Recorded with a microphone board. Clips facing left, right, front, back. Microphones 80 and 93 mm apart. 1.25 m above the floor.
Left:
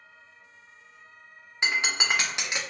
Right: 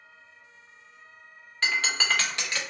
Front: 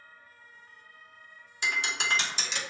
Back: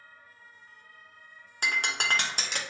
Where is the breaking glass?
160° left, 0.6 m.